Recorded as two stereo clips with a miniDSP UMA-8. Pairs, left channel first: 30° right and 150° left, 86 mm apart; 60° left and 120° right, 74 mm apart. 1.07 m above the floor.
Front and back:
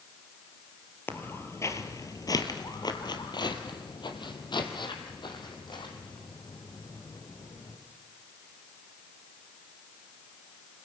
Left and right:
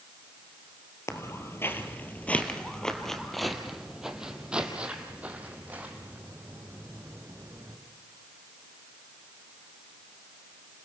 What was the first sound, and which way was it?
Footsteps, 30° left.